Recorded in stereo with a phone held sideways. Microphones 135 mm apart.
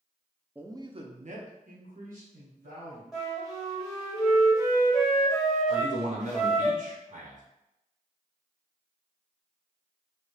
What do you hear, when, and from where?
0.6 s a man speaking: 10° right (ahead or behind), 0.5 m; by 3.0 s 85° right, 1.7 m
3.1 s a flute: centre (ahead or behind), 1.1 m
5.7 s a man speaking: 70° right (ahead or behind), 1.0 m